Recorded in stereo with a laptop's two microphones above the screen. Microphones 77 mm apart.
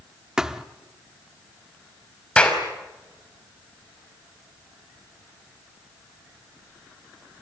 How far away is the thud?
About 0.8 m.